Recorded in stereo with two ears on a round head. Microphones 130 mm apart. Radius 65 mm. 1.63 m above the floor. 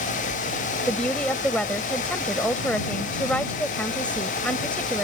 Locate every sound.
0.9 s a woman speaking: 10° left (ahead or behind)